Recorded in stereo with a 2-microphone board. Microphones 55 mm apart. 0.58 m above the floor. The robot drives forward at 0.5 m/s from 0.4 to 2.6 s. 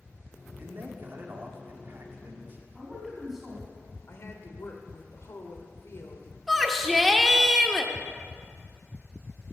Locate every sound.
0.6 s a man speaking: 40° right (ahead or behind), 1.6 m
2.8 s a man speaking: 5° right (ahead or behind), 4.5 m
4.1 s a woman speaking: 55° left (ahead or behind), 1.5 m
6.5 s a shout: centre (ahead or behind), 1.0 m